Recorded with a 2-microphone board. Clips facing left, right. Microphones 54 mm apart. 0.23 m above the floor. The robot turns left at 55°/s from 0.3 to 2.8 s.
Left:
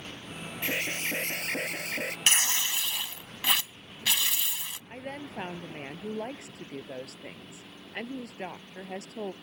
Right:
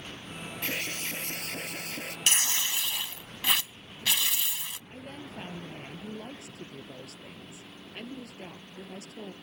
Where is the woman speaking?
75° left (ahead or behind).